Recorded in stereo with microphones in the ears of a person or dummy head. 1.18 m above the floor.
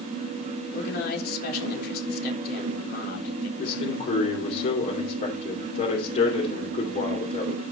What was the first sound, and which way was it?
A man speaking, 60° left (ahead or behind).